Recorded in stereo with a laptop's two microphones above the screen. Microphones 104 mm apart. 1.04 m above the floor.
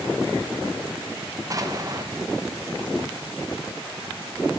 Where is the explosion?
35° right (ahead or behind), 0.6 m.